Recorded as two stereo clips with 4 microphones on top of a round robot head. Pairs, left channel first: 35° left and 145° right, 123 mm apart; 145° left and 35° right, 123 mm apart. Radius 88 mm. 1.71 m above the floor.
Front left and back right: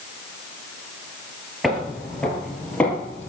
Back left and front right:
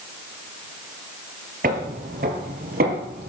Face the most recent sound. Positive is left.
turn(degrees=-40)